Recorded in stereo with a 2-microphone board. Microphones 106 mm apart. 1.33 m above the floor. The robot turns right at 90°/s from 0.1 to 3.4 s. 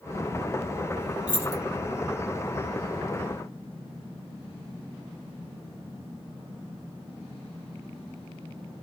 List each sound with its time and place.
1.3 s keys jangling: 10° right (ahead or behind), 1.2 m; by 1.6 s 40° right (ahead or behind), 1.2 m